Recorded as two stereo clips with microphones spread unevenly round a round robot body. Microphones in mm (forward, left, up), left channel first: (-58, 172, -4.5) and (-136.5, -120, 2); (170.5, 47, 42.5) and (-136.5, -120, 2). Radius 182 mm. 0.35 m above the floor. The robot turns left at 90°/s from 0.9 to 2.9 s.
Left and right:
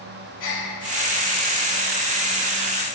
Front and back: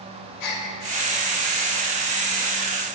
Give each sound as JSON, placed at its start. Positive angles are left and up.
{"t": 0.4, "sound": "a gasp", "azimuth_deg": 40, "distance_m": 1.3}